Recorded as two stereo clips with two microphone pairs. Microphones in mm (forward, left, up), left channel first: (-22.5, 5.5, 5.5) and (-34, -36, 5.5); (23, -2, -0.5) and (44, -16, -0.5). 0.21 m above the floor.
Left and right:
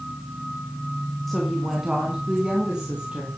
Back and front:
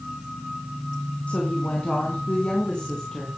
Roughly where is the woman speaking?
Behind.